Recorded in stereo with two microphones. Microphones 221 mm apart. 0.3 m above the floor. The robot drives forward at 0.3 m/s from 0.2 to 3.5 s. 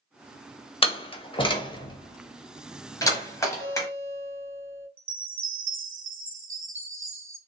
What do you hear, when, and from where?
0.8 s a door slam: 25° left (ahead or behind), 0.6 m; by 3.9 s 15° left (ahead or behind), 1.0 m
3.6 s a guitar: 10° right (ahead or behind), 1.9 m
5.0 s a chime: 65° right (ahead or behind), 0.6 m